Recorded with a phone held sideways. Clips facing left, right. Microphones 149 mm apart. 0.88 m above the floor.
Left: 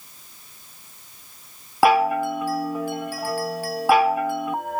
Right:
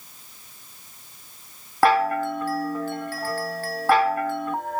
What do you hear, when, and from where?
1.8 s a chime: 10° left (ahead or behind), 0.7 m